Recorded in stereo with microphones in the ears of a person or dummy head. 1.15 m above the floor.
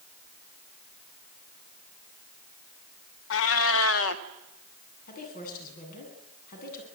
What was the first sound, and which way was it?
A cat meowing, 75° left (ahead or behind).